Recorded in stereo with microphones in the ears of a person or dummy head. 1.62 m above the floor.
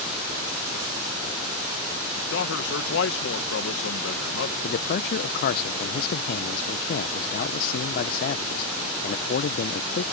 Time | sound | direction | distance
2.3 | a man speaking | 80° left | ?
4.6 | a man speaking | 55° left (ahead or behind) | ?